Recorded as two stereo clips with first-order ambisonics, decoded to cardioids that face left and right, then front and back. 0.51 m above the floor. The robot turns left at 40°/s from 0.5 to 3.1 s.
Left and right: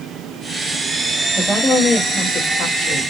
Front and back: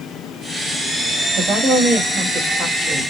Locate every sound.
1.4 s a woman speaking: 155° left, 1.9 m; by 3.1 s 85° left, 1.9 m